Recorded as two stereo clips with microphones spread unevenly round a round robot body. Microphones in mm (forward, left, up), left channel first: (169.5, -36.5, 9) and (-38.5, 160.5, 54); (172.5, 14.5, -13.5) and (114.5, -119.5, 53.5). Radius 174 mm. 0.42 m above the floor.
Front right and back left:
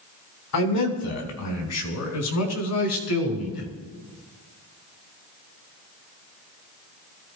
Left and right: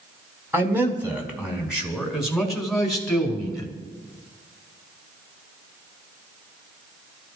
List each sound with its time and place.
0.5 s a man speaking: 25° right, 4 m; by 3.7 s 10° right, 5.5 m